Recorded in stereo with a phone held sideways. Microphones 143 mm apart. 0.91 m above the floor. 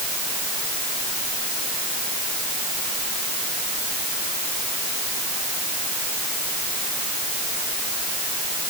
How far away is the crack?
I don't hear a crack.